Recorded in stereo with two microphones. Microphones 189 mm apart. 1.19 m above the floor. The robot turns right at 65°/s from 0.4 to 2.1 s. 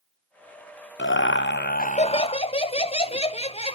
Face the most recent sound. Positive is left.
turn(degrees=150)